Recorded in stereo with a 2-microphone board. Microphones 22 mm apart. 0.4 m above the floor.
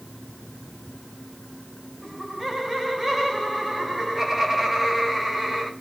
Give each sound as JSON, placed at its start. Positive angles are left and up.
{"t": 2.0, "sound": "laughter", "side_deg": -10, "distance_m": 4.0}